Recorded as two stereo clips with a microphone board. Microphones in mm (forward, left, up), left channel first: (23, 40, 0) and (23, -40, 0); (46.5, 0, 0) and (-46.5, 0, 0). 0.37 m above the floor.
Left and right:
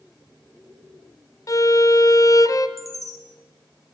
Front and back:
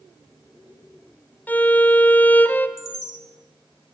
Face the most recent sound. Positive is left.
turn(degrees=180)